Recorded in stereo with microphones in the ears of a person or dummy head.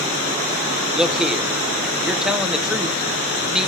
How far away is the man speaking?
About 1.1 m.